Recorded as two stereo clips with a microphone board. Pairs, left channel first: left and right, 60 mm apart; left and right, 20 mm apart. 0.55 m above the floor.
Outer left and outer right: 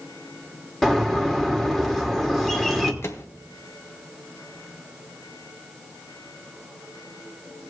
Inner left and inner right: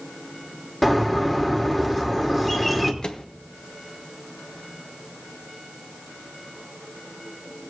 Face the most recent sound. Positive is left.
turn(degrees=45)  # may be behind; listen again after turning